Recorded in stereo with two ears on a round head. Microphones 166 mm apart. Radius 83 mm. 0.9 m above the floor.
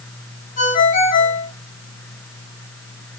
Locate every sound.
0.6 s a ringtone: 45° left (ahead or behind), 5 m